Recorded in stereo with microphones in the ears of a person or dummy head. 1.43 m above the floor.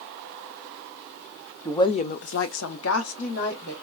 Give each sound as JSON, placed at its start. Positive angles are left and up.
{"t": 1.6, "sound": "a woman speaking", "side_deg": 15, "distance_m": 0.6}